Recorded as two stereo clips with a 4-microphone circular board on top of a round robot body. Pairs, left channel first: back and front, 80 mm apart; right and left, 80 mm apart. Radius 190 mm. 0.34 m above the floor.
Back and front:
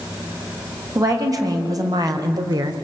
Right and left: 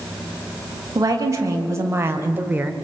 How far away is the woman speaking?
About 4 m.